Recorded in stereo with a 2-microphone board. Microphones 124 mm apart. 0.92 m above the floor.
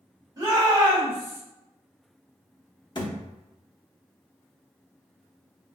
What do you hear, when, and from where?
0.4 s a shout: 30° right (ahead or behind), 1.3 m
3.0 s a thud: 35° left (ahead or behind), 0.7 m